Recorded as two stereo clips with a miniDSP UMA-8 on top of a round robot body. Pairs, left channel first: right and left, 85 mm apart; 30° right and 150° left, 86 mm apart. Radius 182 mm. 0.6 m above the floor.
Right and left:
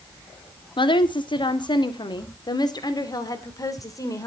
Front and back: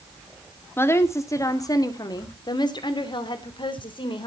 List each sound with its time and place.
0.8 s a woman speaking: 90° right, 2 m; by 4.3 s 40° right, 3.5 m